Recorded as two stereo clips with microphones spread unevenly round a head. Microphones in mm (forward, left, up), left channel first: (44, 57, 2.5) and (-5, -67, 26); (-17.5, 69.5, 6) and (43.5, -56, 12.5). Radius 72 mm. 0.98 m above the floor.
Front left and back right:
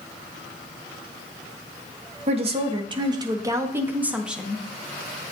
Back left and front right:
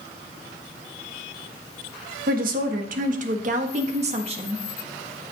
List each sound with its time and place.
2.3 s a woman speaking: 70° right, 1.5 m; by 4.7 s 15° right, 1.5 m